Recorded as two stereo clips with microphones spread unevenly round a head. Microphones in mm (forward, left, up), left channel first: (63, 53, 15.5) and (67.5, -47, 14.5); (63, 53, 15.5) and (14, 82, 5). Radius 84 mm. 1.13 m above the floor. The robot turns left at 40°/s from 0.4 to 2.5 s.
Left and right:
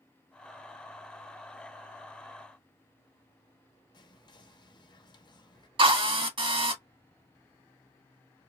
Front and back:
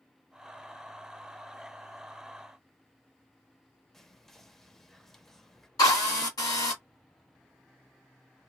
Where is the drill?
55° right, 1.6 m.